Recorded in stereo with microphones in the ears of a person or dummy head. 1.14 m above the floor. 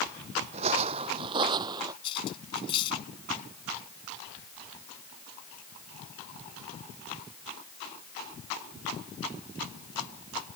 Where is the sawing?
No sawing in this recording.